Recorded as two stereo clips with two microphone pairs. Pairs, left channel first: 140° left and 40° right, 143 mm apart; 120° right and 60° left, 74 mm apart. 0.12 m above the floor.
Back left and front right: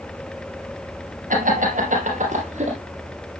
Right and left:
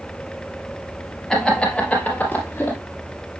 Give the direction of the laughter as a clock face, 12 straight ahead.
1 o'clock.